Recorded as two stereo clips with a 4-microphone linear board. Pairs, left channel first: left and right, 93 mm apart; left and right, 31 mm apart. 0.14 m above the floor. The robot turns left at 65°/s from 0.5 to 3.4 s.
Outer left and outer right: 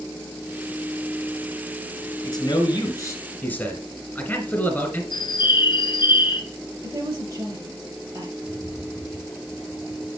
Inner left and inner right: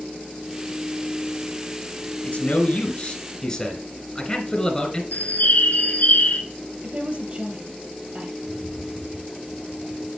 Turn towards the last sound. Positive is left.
turn(degrees=40)  # may be behind; listen again after turning